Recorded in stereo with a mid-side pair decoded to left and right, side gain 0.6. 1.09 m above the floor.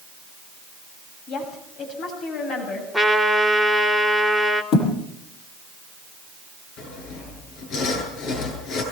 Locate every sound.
1.3 s a woman speaking: 60° left, 7.5 m; by 2.8 s 55° left, 8 m
2.9 s a trumpet: 10° left, 4 m
4.7 s a thud: 60° left, 8.5 m
6.8 s sawing: 65° left, 9.5 m